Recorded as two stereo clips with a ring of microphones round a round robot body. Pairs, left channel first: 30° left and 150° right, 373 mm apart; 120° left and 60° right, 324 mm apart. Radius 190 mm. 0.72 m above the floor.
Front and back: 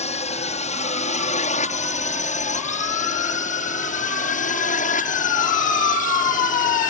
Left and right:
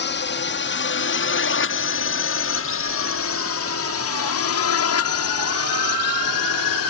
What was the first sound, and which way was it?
A drone, 90° left.